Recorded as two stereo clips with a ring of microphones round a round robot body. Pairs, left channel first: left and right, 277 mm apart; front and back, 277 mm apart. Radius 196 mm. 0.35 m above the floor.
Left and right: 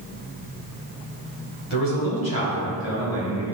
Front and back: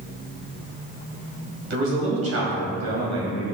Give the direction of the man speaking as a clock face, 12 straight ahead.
7 o'clock.